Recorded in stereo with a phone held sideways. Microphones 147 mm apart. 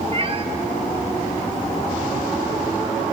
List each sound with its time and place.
0.1 s a cat meowing: 40° right (ahead or behind), 1.1 m